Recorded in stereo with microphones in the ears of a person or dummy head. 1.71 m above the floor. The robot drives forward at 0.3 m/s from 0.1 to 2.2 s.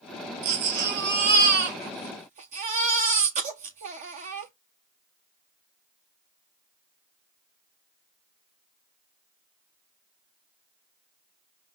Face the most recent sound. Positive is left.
turn(degrees=-40)  # may be behind; listen again after turning